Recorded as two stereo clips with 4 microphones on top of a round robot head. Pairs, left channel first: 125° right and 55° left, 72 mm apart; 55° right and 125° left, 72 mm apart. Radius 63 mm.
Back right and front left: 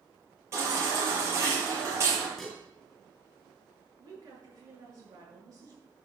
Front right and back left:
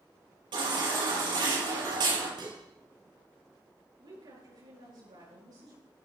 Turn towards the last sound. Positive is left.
turn(degrees=100)